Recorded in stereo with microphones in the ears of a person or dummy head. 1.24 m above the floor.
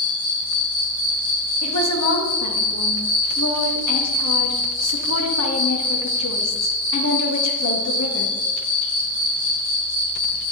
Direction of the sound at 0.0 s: 75° left (ahead or behind).